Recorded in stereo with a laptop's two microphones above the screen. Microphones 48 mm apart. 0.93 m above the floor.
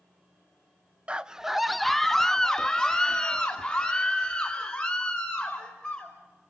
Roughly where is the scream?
Right.